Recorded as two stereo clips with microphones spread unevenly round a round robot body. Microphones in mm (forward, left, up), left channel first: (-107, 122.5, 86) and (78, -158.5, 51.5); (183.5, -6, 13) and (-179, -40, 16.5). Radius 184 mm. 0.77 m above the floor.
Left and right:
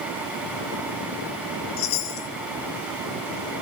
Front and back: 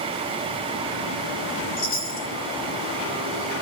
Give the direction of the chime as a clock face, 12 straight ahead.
10 o'clock.